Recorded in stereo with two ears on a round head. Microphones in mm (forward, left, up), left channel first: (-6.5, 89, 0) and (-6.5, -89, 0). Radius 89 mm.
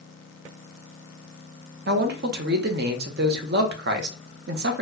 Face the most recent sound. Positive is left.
turn(degrees=-55)  # may be behind; listen again after turning